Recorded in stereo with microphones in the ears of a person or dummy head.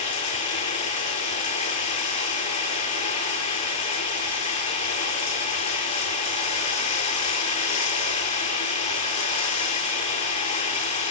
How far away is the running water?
About 6 m.